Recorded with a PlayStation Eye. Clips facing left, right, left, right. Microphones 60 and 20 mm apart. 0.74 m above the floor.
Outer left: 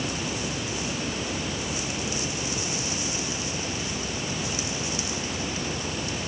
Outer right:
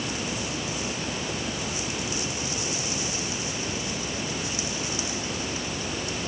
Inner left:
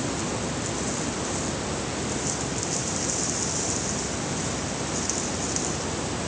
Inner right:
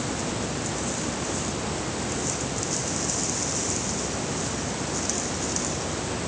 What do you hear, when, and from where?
Only background noise.